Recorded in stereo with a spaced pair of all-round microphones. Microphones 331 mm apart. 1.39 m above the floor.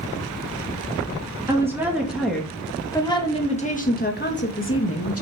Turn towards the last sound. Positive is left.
turn(degrees=45)  # may be behind; listen again after turning